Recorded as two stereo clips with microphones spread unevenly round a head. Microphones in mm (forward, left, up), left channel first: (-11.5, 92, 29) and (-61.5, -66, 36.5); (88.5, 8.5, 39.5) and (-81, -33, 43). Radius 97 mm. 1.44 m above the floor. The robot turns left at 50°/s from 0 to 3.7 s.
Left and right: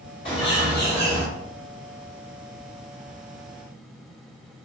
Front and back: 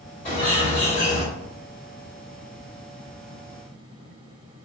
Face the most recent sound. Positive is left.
turn(degrees=-130)